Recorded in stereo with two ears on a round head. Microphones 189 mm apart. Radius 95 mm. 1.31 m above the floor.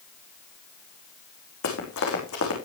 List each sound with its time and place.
1.6 s running footsteps: 75° left (ahead or behind), 5.5 m